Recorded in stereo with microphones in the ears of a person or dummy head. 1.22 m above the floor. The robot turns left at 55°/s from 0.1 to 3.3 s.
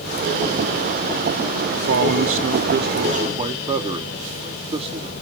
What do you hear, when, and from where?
1.7 s a man speaking: 60° right, 0.5 m; by 5.1 s 150° right, 0.5 m